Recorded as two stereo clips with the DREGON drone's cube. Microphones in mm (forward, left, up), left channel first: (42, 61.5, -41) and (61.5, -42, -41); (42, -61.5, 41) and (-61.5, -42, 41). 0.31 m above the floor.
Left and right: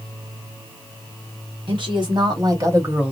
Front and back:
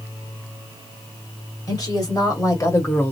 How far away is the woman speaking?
About 1.8 m.